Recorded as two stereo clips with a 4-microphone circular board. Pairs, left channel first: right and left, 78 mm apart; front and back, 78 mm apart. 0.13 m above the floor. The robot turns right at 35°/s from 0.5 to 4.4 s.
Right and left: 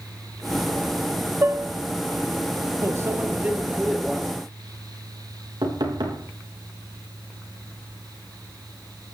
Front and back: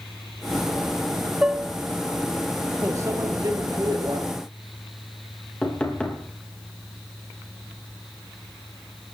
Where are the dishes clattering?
110° left, 0.9 m; by 1.7 s 120° left, 0.9 m.